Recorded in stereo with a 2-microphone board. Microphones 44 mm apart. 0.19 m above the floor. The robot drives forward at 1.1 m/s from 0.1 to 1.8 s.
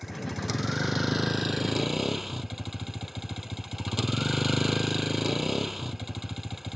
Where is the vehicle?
5° right (ahead or behind).